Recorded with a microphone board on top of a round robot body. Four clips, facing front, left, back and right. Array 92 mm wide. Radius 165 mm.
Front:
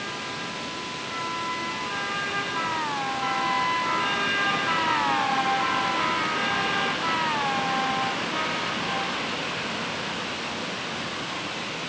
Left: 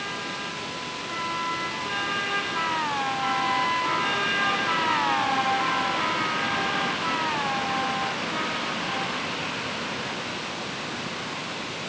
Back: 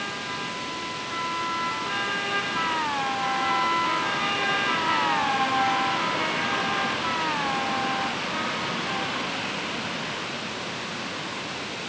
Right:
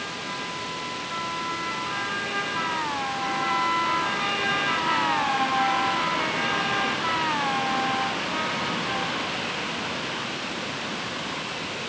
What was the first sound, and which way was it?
Only background noise.